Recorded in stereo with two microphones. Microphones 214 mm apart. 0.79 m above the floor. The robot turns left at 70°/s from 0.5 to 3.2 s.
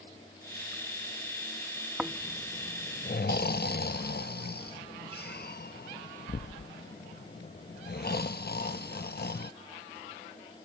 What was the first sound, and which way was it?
Snoring, 5° right (ahead or behind).